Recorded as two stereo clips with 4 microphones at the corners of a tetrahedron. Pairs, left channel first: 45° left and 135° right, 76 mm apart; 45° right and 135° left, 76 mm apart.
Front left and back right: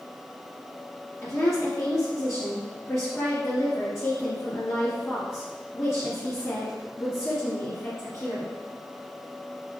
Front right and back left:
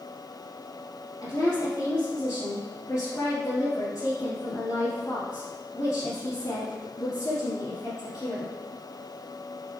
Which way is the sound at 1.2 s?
5° right.